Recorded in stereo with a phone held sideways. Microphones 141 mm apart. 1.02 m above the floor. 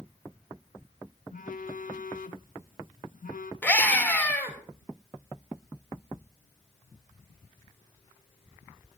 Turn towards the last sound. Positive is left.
turn(degrees=10)  # may be behind; listen again after turning